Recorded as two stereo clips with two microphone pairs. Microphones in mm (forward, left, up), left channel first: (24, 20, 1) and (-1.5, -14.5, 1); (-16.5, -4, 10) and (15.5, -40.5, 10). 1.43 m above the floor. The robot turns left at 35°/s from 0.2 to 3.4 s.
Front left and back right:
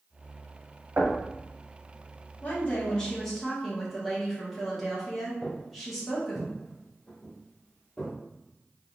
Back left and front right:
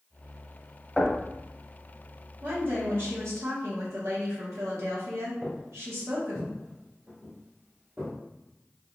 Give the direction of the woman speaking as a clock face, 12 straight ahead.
12 o'clock.